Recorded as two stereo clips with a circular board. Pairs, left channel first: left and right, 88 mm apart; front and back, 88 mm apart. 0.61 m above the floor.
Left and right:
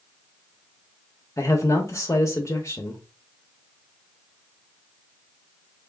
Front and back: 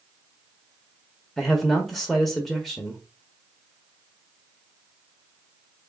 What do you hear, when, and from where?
1.4 s a man speaking: 85° left, 0.8 m